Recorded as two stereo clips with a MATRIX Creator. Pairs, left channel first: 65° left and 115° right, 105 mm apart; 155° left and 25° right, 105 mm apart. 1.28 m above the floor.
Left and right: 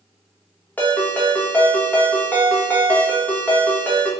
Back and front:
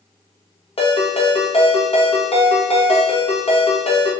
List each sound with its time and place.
0.8 s a ringtone: 140° left, 1.0 m